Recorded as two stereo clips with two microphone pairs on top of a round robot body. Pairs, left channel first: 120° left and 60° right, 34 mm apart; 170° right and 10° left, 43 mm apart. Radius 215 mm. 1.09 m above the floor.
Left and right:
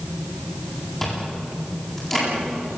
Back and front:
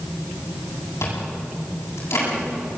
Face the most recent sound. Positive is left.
turn(degrees=-160)